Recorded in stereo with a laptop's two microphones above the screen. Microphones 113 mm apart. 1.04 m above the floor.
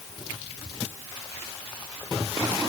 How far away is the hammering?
No hammering in this recording.